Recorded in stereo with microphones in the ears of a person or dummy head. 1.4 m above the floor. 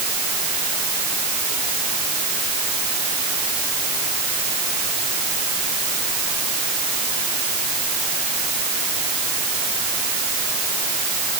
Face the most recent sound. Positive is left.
No sound to turn to.